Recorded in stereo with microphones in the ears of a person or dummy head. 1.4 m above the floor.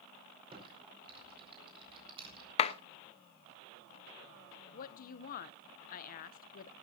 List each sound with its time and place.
0.5 s typing on a keyboard: 30° right (ahead or behind), 5 m
2.6 s a clap: 35° left (ahead or behind), 0.9 m
4.7 s a woman speaking: 50° left (ahead or behind), 0.7 m